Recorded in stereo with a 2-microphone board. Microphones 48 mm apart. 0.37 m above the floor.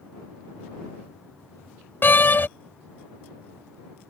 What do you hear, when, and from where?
2.0 s a door slam: 45° left (ahead or behind)